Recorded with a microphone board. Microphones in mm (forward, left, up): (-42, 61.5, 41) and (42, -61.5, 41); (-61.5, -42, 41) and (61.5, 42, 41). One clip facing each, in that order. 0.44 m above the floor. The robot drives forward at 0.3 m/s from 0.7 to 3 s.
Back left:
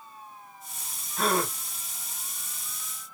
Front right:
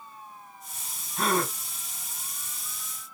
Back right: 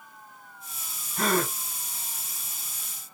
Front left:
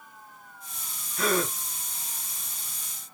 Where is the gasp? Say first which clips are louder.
Even, even; 145° right, 1.8 m; by 1.5 s 150° right, 1.9 m.